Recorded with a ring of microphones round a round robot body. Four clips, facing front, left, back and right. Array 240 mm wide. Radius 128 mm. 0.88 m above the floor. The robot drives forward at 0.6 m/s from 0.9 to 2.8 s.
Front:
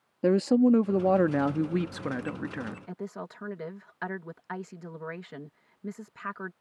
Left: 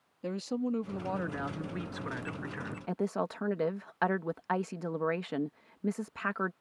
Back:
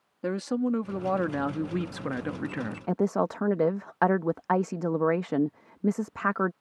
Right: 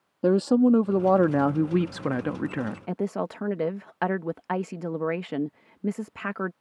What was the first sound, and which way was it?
A woman speaking, 60° right.